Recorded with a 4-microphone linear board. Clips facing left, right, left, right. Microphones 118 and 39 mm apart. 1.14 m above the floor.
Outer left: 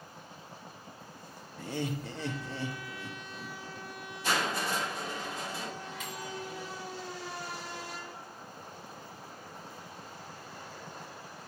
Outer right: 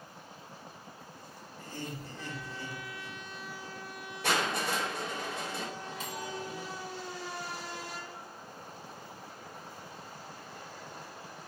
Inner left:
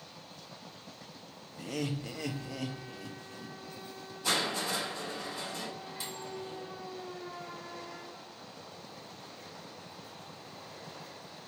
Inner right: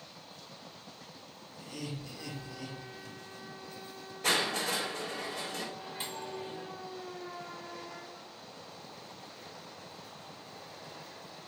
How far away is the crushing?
About 4 m.